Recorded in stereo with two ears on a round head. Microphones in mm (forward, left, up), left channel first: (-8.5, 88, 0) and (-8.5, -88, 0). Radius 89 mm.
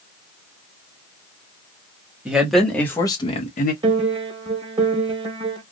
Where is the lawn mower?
I don't hear a lawn mower.